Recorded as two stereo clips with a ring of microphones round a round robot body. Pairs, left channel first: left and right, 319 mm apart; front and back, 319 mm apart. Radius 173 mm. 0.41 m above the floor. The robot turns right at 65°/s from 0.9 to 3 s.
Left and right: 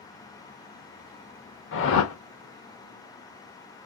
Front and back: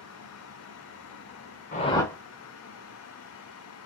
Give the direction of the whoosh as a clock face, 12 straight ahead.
10 o'clock.